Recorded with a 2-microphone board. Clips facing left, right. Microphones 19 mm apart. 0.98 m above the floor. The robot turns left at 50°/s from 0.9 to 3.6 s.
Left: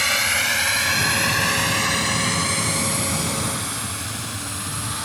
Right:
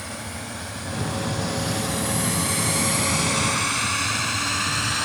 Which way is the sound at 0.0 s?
70° left (ahead or behind).